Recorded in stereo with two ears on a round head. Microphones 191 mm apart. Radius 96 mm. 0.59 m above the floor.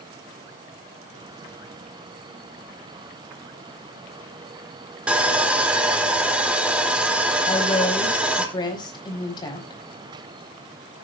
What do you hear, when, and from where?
5.1 s sawing: 5° right (ahead or behind), 1.5 m
7.5 s a woman speaking: 20° left (ahead or behind), 4.5 m